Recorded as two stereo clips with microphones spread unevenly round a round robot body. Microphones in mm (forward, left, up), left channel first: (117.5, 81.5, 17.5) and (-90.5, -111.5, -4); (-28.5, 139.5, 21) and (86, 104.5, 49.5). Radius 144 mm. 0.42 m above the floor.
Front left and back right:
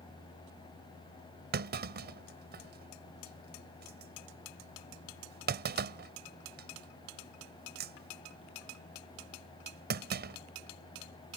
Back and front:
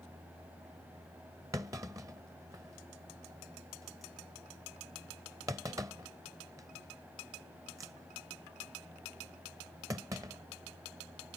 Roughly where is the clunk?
Right.